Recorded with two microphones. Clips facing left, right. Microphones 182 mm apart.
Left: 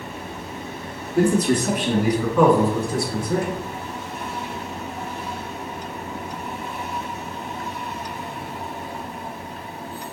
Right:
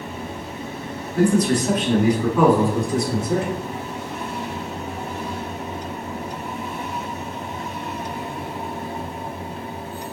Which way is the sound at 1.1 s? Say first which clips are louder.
Even; 30° left (ahead or behind).